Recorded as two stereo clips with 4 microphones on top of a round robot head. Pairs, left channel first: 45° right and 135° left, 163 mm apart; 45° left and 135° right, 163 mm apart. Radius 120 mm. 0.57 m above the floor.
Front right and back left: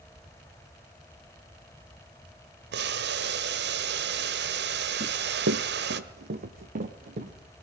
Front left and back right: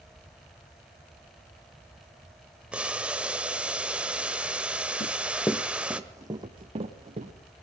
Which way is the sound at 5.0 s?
90° left.